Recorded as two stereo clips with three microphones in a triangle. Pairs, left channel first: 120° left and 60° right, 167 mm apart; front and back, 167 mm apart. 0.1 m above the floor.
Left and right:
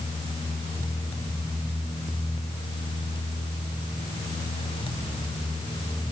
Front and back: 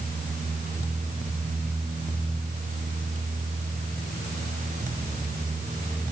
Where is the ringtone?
No ringtone in this recording.